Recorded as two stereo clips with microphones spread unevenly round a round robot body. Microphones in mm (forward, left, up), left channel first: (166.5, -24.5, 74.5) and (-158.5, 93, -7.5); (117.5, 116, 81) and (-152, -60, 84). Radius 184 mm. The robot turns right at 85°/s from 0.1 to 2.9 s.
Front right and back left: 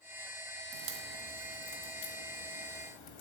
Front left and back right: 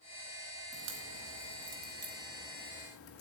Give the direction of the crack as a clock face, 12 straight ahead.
7 o'clock.